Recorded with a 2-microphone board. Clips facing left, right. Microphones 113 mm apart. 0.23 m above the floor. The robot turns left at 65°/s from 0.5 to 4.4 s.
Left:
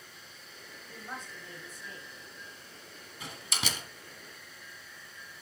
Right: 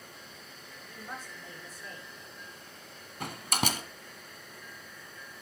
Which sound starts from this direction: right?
A door slam, at 3.2 s.